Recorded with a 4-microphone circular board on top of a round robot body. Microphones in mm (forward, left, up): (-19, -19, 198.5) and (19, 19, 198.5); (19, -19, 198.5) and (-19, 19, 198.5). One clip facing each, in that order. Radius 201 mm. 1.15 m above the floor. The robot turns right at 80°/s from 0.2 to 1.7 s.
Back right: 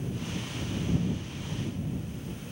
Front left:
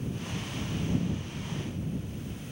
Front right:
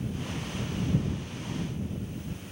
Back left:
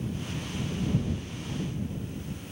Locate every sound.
Only background noise.